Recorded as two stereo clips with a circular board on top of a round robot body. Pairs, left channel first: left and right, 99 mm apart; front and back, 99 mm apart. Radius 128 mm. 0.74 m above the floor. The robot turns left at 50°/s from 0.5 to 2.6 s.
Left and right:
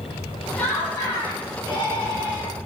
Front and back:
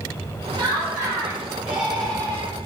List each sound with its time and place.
0.6 s laughter: 160° left, 1.1 m; by 2.5 s 60° left, 1.1 m